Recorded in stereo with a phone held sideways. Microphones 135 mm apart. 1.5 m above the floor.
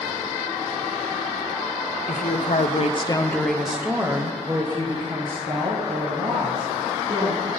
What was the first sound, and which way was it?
A woman speaking, 75° left (ahead or behind).